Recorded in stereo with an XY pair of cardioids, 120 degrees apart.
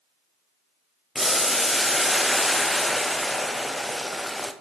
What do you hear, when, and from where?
1.1 s boiling: 5° left, 0.6 m